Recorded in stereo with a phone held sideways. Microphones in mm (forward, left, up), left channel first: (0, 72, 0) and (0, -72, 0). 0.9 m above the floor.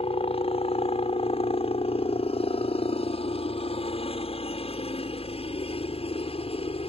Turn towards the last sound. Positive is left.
turn(degrees=45)  # may be behind; listen again after turning